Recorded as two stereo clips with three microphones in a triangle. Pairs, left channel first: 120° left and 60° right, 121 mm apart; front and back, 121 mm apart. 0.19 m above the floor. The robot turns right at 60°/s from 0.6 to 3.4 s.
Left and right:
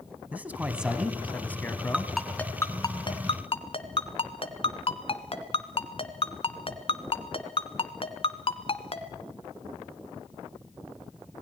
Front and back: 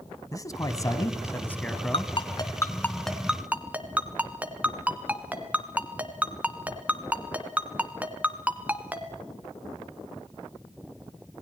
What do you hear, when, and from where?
0.3 s a man speaking: 5° left, 1.5 m; by 2.1 s 95° left, 1.5 m
1.9 s a ringtone: 20° left, 1.4 m; by 9.1 s 105° left, 1.4 m